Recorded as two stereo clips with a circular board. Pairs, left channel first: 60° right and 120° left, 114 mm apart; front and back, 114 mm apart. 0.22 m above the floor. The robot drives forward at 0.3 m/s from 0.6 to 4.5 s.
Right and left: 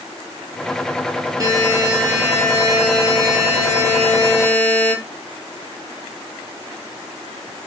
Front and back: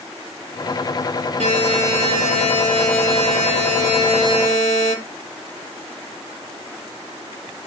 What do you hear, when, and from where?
1.4 s a buzzer: straight behind, 6.5 m